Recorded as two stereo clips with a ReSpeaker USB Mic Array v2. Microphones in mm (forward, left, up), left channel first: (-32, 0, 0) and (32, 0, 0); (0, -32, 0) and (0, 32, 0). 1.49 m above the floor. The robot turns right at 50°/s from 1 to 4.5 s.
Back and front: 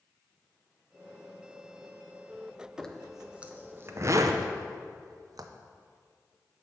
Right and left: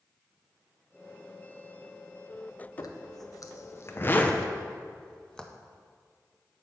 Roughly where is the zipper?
Right.